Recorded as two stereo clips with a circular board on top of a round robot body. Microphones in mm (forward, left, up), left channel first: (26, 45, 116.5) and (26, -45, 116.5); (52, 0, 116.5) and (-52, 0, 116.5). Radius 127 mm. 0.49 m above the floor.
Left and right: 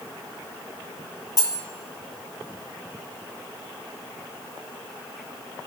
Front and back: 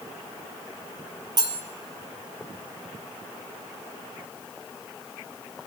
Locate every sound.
1.4 s cutlery clinking: 135° left, 1.4 m